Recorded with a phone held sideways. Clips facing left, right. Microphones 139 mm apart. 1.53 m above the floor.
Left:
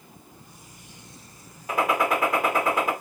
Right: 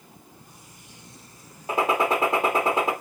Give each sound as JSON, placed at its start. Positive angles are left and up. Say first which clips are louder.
{"t": 1.7, "sound": "a gunshot", "louder": "right 1 dB", "side_deg": -25, "distance_m": 1.4}